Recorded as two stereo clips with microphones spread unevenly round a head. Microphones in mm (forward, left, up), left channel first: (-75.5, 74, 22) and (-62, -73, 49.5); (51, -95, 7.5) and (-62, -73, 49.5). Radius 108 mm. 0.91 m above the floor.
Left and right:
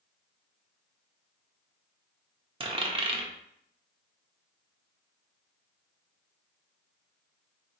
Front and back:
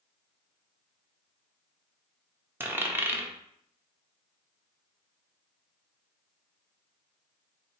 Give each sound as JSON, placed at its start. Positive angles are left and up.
{"t": 2.6, "sound": "a dropped coin", "azimuth_deg": -130, "distance_m": 0.8}